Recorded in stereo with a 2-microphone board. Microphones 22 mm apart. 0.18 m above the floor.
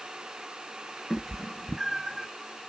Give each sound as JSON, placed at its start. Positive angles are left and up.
{"t": 1.1, "sound": "a cat meowing", "side_deg": 15, "distance_m": 0.7}